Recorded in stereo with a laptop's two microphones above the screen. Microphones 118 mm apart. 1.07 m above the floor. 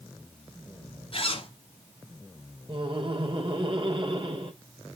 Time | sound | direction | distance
1.1 | a zipper | 50° left (ahead or behind) | 3.5 m
2.7 | laughter | 45° right (ahead or behind) | 3.5 m